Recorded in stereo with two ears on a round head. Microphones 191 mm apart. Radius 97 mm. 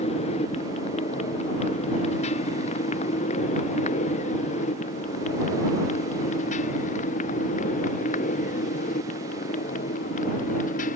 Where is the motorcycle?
30° left (ahead or behind); by 11.0 s 35° left (ahead or behind).